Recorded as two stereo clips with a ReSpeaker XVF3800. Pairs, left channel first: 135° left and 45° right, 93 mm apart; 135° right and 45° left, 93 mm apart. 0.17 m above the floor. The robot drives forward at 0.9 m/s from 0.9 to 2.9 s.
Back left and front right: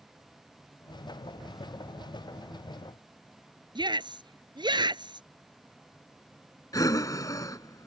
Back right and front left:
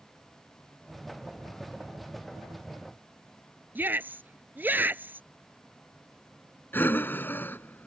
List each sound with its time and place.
3.8 s a shout: 25° right
6.7 s breathing: 165° left